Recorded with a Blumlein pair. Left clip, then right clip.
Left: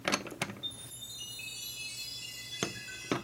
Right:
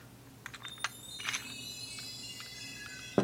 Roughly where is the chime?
Ahead left.